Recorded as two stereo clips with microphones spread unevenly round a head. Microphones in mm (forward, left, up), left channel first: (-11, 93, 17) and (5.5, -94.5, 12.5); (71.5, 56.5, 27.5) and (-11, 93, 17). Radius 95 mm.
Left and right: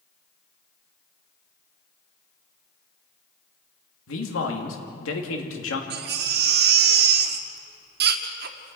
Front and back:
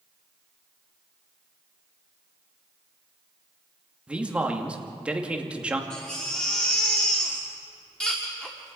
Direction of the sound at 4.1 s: 80° left.